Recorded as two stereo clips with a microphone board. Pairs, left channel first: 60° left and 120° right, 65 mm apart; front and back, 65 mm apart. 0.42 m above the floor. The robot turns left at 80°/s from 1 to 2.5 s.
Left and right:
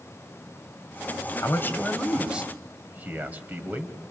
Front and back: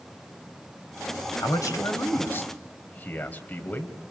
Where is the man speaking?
30° left, 2.5 m; by 4.0 s 60° right, 2.5 m.